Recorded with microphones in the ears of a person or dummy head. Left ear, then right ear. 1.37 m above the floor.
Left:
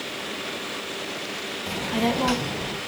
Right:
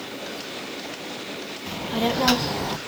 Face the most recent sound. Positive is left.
turn(degrees=-65)  # may be behind; listen again after turning